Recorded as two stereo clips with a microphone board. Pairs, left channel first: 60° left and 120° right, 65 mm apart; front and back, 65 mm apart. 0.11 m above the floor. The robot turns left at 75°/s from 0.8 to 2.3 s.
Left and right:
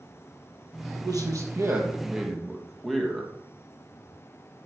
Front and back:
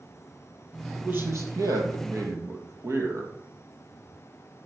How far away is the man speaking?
About 2.5 m.